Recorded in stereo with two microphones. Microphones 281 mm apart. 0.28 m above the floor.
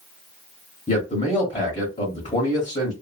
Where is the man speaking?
25° left (ahead or behind), 1.1 m.